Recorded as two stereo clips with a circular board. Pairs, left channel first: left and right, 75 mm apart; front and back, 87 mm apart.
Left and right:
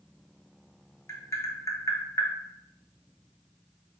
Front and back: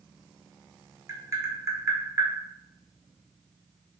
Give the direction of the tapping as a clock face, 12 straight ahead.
8 o'clock.